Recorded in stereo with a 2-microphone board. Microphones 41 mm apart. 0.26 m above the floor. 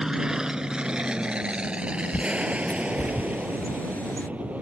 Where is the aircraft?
15° right (ahead or behind); by 4.6 s 35° right (ahead or behind).